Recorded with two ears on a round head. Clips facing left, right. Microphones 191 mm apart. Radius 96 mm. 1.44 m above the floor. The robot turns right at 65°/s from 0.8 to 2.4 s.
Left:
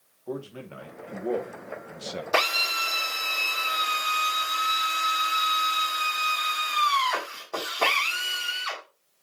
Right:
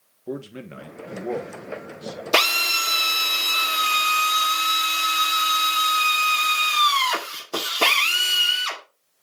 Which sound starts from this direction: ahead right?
A man speaking, at 0.3 s.